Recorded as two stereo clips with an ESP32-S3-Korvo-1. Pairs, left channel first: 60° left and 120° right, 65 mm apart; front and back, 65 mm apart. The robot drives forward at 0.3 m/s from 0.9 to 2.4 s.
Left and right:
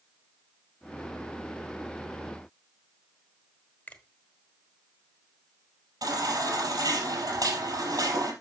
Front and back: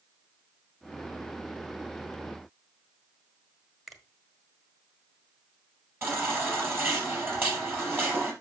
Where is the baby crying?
125° right, 4.5 m.